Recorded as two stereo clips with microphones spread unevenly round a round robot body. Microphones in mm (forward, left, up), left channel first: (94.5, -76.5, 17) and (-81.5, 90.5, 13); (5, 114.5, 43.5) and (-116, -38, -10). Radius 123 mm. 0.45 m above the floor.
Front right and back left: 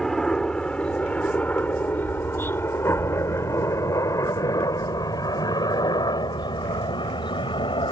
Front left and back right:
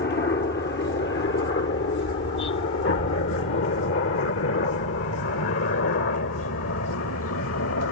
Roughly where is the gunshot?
I don't hear a gunshot.